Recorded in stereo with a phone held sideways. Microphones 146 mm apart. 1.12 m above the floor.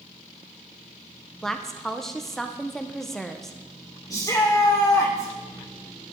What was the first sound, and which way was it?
A woman speaking, 5° left (ahead or behind).